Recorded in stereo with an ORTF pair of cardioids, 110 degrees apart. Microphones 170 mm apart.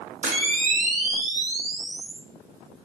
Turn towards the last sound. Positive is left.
turn(degrees=-50)